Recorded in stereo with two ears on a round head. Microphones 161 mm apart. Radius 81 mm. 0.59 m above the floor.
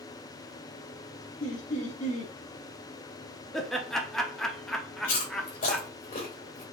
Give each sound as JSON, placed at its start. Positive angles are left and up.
{"t": 1.4, "sound": "laughter", "side_deg": 45, "distance_m": 1.5}
{"t": 3.5, "sound": "laughter", "side_deg": 5, "distance_m": 0.8}
{"t": 5.0, "sound": "chewing", "side_deg": 50, "distance_m": 2.5}